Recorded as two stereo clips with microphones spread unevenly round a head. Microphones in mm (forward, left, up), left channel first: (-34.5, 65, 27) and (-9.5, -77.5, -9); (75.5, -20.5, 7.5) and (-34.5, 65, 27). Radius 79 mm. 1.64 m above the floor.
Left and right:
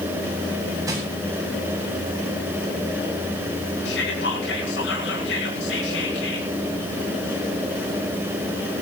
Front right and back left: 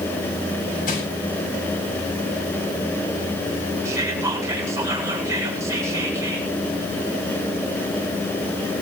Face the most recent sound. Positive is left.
turn(degrees=70)